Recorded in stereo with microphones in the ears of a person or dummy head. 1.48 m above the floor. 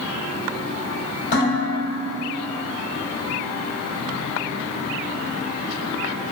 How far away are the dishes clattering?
About 1.9 m.